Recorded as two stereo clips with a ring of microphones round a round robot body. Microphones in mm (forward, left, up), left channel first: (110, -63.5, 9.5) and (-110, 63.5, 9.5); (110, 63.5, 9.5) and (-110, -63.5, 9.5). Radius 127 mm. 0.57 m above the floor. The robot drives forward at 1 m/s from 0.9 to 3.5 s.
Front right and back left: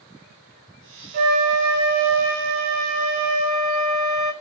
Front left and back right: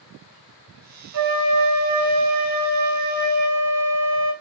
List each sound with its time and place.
1.1 s a flute: 160° right, 3 m; by 4.3 s 170° right, 5.5 m